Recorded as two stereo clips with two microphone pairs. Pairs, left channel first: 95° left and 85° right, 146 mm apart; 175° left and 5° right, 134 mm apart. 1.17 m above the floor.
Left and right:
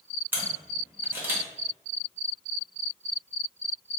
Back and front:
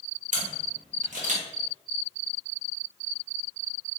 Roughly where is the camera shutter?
Ahead.